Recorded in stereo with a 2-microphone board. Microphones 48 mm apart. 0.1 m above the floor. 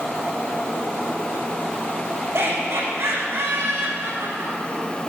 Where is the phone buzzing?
No phone buzzing in this recording.